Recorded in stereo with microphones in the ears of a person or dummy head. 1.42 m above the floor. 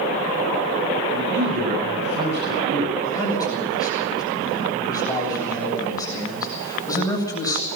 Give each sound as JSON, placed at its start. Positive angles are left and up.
{"t": 1.1, "sound": "a man speaking", "side_deg": -60, "distance_m": 9.0}
{"t": 3.0, "sound": "a man speaking", "side_deg": 15, "distance_m": 8.0}